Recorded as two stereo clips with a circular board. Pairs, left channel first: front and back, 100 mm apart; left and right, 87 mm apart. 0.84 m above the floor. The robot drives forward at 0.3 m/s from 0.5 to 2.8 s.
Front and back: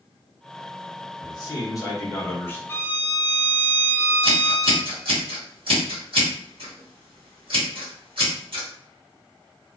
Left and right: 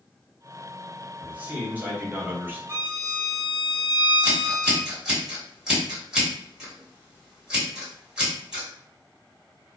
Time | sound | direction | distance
1.2 | a man speaking | 25° right | 1.0 m
2.7 | a violin | 50° right | 0.8 m
4.2 | scissors | 175° right | 1.4 m